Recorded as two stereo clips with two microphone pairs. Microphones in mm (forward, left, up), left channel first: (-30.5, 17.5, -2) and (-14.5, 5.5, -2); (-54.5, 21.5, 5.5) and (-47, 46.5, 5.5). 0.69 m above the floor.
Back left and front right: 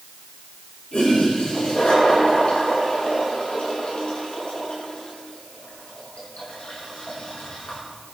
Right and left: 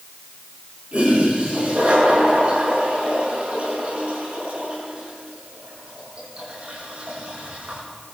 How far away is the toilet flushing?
About 6.5 m.